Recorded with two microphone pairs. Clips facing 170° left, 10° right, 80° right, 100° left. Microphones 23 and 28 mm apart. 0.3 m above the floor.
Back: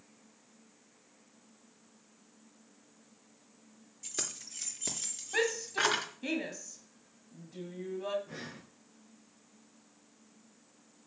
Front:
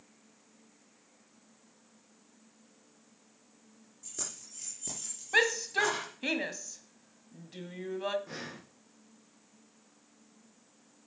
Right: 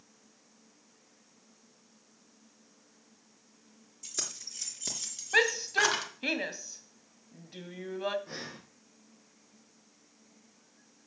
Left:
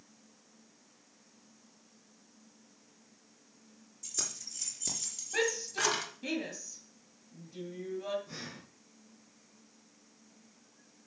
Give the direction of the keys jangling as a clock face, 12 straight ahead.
5 o'clock.